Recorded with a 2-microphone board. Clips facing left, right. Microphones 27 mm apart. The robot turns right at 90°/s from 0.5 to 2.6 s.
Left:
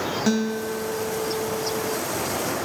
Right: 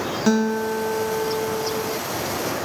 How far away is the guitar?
About 0.7 m.